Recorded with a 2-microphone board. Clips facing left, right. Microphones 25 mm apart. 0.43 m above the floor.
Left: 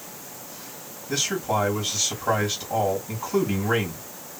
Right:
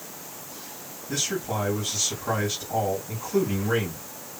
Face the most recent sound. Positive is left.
turn(degrees=40)  # may be behind; listen again after turning